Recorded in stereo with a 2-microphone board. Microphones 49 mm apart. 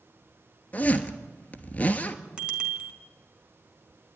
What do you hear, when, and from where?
0.7 s a zipper: 25° left (ahead or behind), 1.3 m
2.4 s a bicycle bell: 20° right (ahead or behind), 2.5 m